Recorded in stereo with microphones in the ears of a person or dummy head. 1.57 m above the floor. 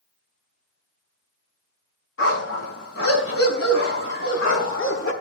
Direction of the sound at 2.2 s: 80° left.